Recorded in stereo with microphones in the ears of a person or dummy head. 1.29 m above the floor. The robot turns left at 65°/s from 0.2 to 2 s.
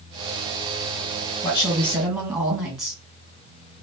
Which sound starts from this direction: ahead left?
A woman speaking, at 1.4 s.